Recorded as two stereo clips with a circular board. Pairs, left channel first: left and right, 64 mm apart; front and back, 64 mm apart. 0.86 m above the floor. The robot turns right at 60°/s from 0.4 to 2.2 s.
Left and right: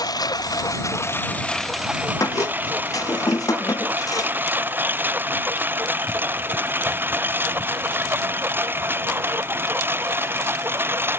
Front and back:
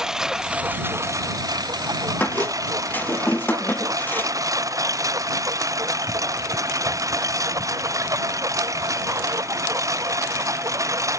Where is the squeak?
60° left.